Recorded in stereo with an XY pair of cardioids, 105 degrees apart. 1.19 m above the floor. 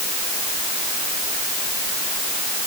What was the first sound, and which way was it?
Only background noise.